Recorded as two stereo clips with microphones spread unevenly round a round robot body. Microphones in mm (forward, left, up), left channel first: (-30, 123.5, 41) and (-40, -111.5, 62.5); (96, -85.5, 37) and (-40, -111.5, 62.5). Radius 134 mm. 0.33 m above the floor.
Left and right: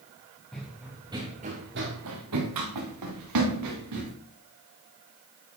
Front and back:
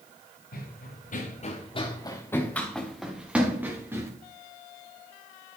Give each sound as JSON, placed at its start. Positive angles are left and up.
{"t": 0.5, "sound": "running footsteps", "azimuth_deg": 0, "distance_m": 2.0}